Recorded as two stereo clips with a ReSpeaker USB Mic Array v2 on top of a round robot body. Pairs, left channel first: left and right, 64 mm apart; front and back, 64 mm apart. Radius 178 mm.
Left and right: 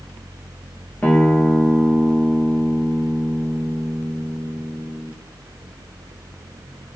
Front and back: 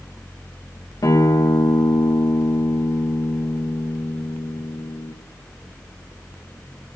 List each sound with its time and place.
1.0 s a guitar: 25° left, 2.5 m